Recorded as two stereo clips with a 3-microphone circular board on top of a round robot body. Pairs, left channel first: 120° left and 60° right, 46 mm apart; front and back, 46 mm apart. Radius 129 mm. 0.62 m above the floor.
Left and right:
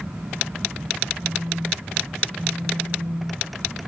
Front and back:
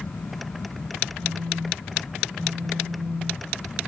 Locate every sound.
1.2 s a phone buzzing: 100° right, 3 m